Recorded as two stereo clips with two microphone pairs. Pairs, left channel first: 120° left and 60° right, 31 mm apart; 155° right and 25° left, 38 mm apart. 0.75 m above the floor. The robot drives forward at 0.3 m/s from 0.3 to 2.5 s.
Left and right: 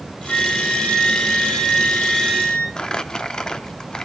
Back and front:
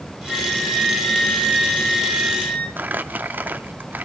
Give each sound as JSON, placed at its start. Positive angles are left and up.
{"t": 0.3, "sound": "a flute", "azimuth_deg": 135, "distance_m": 3.0}
{"t": 2.8, "sound": "crumpling", "azimuth_deg": 55, "distance_m": 0.9}